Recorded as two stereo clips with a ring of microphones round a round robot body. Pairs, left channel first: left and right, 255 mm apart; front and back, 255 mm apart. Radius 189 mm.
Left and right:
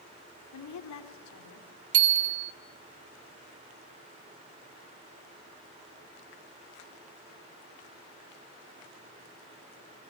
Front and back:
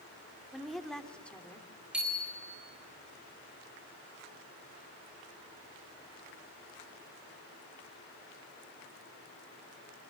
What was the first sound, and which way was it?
A woman speaking, 90° left.